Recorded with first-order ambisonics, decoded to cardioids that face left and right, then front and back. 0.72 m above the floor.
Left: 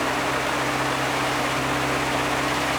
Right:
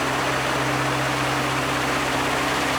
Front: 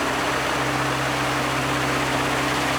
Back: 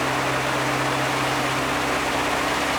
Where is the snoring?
I don't hear snoring.